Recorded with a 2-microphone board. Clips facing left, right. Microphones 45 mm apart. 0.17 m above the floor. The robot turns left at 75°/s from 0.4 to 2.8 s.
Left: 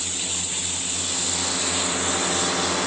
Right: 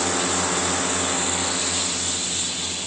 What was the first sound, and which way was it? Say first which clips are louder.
A drone: right 10 dB; 90° right.